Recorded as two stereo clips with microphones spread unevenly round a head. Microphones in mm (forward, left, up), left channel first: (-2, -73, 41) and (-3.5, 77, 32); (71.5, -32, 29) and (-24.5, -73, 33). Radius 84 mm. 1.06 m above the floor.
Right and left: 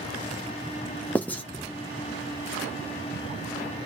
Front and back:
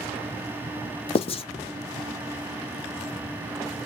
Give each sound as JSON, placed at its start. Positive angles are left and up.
{"t": 1.1, "sound": "writing", "azimuth_deg": -10, "distance_m": 0.6}